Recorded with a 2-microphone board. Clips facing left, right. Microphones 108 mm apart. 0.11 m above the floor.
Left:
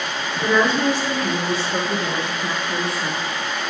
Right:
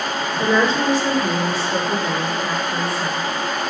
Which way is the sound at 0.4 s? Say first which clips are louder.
Even; 30° right (ahead or behind).